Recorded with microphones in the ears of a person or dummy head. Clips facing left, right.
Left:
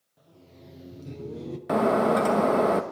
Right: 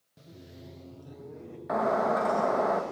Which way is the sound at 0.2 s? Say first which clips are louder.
Right 3 dB; 35° right (ahead or behind).